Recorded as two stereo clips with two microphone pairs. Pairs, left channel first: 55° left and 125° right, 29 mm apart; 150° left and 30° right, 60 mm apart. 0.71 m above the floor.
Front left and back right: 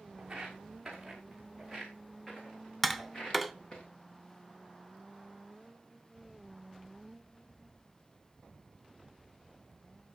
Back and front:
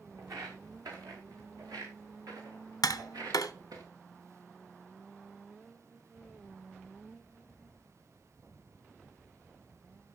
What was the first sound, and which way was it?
Footsteps, 55° right.